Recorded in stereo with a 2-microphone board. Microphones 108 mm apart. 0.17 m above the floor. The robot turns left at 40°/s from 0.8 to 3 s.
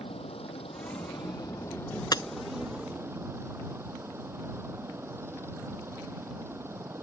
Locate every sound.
0.0 s a helicopter: 65° left; by 7.0 s 25° right
2.1 s breaking glass: 40° left (ahead or behind); by 2.2 s 35° left (ahead or behind)